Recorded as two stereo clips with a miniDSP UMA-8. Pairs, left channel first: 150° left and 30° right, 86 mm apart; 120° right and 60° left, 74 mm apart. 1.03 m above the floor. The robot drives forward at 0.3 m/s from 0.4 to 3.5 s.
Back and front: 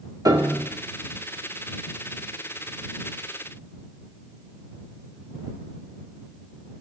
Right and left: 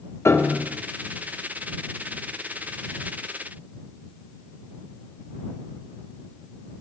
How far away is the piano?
About 0.9 m.